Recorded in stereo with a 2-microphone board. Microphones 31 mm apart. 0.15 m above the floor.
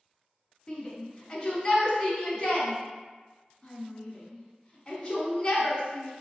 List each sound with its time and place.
0.7 s a shout: 20° left (ahead or behind), 1.5 m